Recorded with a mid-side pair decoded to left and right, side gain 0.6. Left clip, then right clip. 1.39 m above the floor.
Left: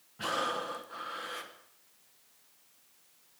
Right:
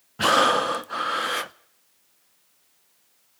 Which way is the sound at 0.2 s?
60° right.